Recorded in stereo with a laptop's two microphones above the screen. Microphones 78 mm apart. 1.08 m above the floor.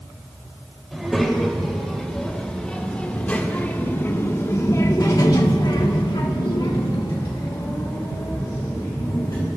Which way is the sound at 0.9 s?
Centre (ahead or behind).